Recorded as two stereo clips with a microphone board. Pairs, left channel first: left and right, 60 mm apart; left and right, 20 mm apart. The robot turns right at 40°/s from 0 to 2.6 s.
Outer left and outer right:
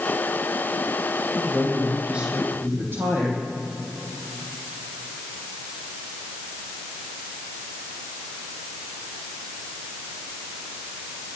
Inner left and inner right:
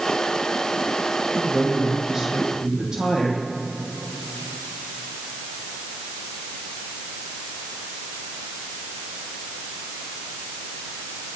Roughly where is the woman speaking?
Behind.